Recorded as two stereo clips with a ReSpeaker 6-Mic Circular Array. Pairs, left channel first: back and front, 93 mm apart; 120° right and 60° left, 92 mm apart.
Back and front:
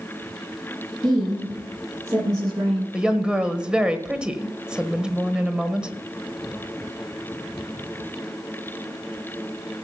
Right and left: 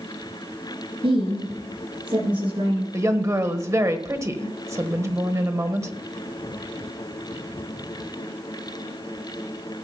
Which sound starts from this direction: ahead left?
A woman speaking, at 1.0 s.